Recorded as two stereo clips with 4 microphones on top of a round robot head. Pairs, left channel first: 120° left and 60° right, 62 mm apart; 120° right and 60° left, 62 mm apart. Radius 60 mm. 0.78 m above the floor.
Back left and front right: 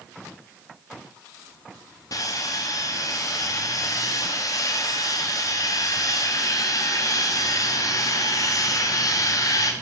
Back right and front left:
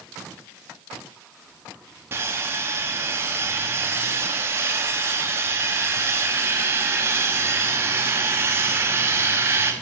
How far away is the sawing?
About 1.5 m.